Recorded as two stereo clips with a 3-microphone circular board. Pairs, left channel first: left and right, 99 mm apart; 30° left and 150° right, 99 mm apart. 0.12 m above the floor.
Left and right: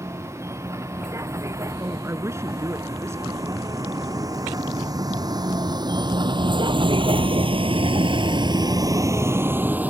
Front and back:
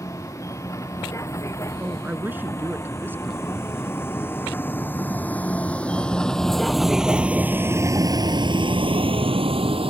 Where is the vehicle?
30° right; by 9.9 s 165° right.